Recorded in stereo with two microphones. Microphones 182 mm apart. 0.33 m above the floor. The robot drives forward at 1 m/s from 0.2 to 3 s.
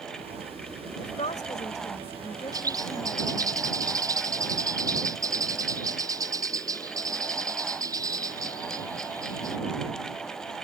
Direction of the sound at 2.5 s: 20° right (ahead or behind).